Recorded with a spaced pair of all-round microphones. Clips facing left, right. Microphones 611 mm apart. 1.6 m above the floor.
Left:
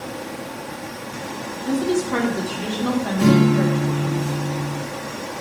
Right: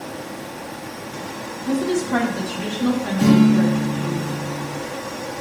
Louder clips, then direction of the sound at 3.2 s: Right 2 dB; 25° right (ahead or behind).